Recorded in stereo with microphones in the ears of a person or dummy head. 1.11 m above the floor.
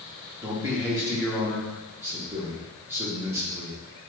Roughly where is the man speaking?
Centre.